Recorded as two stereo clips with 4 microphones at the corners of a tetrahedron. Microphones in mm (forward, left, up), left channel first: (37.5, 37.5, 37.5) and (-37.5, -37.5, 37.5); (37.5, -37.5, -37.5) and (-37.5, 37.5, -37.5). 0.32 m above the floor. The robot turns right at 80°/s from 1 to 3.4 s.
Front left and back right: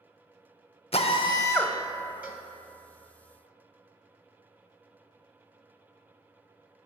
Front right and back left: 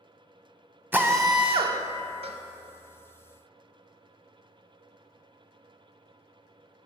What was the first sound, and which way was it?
A drill, 65° left.